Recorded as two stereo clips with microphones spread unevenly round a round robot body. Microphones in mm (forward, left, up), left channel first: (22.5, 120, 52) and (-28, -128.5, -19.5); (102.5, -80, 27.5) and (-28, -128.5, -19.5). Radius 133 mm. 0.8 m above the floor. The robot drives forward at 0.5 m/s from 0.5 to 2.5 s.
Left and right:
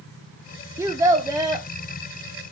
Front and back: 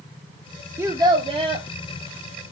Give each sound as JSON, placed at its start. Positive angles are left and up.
{"t": 0.8, "sound": "a child speaking", "azimuth_deg": -145, "distance_m": 0.6}